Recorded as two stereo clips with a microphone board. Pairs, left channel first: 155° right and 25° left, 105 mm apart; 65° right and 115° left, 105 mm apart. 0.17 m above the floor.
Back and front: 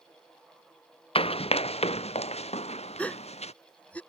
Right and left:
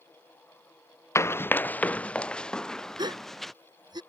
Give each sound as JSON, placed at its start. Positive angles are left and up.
{"t": 1.1, "sound": "running footsteps", "azimuth_deg": -130}
{"t": 3.0, "sound": "a gasp", "azimuth_deg": 130}